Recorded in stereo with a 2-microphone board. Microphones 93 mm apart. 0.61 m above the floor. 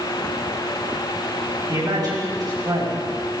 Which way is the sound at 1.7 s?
45° right (ahead or behind).